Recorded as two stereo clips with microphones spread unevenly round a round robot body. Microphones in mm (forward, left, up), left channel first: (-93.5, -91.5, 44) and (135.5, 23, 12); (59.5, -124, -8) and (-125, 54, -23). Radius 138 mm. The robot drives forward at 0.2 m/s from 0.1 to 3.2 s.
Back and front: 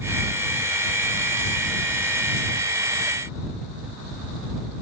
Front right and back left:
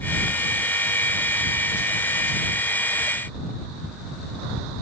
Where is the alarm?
No alarm in this recording.